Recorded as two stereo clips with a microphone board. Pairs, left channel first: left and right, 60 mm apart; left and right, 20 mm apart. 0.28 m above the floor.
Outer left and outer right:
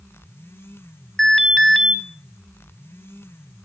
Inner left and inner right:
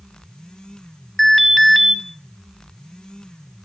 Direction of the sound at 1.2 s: Centre (ahead or behind).